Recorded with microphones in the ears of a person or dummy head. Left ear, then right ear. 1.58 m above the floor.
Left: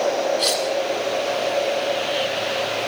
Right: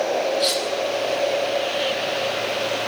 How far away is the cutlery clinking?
About 7 m.